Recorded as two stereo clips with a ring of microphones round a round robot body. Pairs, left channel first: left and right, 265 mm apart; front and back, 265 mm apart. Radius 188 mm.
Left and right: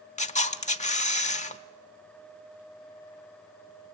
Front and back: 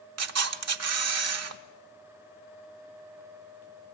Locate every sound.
0.2 s a camera shutter: 155° left, 1.2 m